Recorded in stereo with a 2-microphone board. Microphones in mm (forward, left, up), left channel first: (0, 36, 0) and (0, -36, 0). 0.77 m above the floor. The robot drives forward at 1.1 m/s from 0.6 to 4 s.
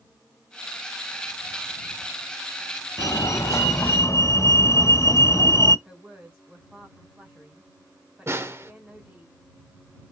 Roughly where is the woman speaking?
Right.